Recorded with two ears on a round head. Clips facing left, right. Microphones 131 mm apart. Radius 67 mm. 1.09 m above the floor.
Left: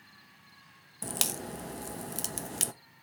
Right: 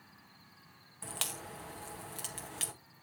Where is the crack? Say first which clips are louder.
Left 7 dB; 45° left (ahead or behind), 0.7 m.